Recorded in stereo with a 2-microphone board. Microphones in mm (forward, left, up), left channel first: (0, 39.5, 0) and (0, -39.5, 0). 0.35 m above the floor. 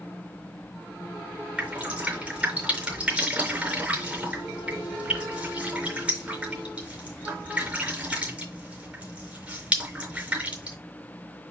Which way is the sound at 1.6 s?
15° right (ahead or behind).